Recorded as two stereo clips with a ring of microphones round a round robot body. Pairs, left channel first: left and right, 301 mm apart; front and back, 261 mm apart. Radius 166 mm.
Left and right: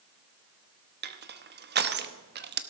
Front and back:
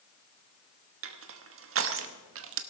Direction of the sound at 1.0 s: 145° right.